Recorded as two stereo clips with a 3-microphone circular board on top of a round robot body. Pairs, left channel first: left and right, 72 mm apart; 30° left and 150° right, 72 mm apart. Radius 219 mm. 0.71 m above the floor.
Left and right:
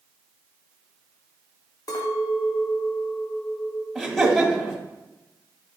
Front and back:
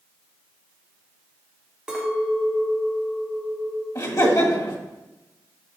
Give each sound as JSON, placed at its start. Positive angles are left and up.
{"t": 1.9, "sound": "a clink", "azimuth_deg": 130, "distance_m": 1.1}
{"t": 4.0, "sound": "laughter", "azimuth_deg": 0, "distance_m": 1.9}